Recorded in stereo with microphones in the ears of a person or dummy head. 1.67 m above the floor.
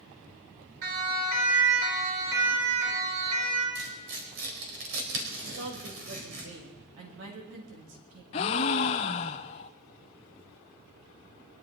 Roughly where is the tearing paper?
Right.